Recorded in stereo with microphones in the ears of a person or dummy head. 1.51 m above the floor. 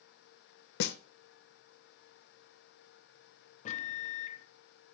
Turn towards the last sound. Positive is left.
turn(degrees=40)  # may be behind; listen again after turning